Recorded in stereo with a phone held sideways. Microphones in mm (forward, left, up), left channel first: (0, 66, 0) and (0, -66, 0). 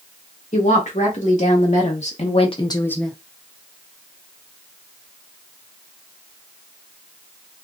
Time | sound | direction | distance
0.5 | a woman speaking | 75° left (ahead or behind) | 2.5 m